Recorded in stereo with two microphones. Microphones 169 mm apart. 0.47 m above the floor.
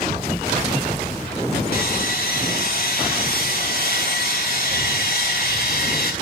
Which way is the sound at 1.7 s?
65° left (ahead or behind).